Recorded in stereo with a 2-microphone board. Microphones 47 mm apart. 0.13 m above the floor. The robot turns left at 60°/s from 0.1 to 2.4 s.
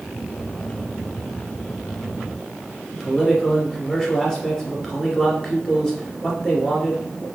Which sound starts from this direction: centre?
A man speaking, at 2.9 s.